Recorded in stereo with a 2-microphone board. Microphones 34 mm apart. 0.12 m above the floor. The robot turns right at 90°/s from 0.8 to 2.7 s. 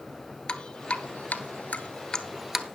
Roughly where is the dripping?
Left.